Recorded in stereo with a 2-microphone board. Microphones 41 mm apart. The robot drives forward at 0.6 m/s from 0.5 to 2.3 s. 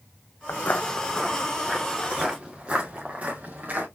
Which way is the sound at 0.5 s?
60° left (ahead or behind).